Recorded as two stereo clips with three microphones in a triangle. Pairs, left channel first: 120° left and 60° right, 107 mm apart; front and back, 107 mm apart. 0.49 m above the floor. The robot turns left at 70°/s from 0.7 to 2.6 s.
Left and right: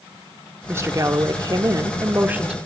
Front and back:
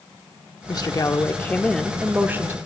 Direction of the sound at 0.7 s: 5° right.